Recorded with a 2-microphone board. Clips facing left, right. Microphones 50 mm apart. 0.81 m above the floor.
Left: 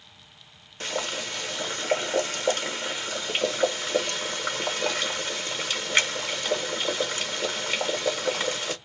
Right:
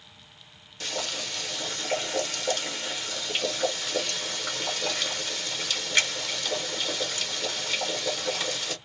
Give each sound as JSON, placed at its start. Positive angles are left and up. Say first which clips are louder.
{"t": 0.8, "sound": "boiling", "louder": "left 3 dB", "side_deg": 35, "distance_m": 1.4}